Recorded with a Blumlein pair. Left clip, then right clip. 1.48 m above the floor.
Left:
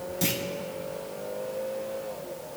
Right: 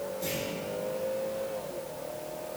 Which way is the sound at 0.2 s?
40° left.